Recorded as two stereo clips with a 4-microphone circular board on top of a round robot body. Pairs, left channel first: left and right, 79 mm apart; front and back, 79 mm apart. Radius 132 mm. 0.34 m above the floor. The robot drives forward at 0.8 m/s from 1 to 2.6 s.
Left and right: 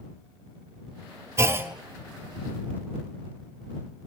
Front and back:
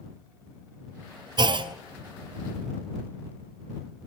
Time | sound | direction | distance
1.4 | a clunk | 145° right | 0.6 m